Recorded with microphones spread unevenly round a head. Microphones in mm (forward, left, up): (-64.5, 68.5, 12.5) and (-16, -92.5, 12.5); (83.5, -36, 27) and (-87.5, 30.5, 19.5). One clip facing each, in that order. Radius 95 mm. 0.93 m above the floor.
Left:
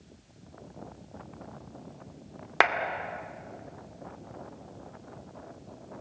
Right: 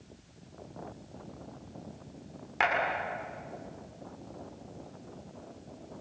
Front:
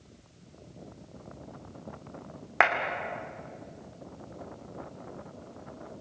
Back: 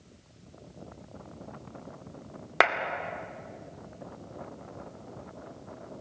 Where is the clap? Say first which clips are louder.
Left 4 dB, back 1 dB; 115° left, 2.5 m.